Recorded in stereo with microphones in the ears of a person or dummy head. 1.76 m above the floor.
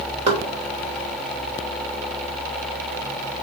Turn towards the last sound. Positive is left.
turn(degrees=-25)  # may be behind; listen again after turning